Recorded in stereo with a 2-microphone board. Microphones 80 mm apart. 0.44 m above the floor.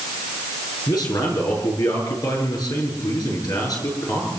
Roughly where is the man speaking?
Left.